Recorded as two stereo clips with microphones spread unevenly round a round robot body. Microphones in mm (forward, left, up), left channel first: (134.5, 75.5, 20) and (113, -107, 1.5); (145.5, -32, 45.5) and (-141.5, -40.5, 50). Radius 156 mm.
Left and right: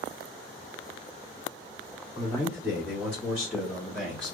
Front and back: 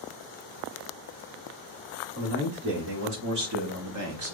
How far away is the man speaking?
About 2.5 m.